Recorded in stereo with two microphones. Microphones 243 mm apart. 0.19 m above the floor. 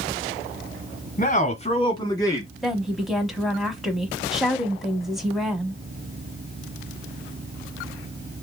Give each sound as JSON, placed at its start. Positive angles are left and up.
{"t": 1.2, "sound": "a man speaking", "side_deg": 35, "distance_m": 1.3}
{"t": 2.6, "sound": "a woman speaking", "side_deg": 0, "distance_m": 1.0}